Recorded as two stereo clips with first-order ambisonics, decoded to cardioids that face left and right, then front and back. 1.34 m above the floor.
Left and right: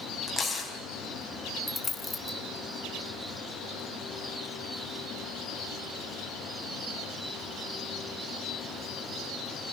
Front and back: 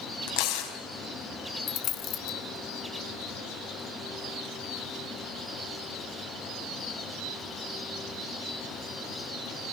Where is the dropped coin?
15° left, 1.6 m.